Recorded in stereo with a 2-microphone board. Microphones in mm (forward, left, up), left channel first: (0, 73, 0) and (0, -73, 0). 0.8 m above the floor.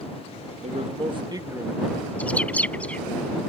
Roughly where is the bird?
Centre.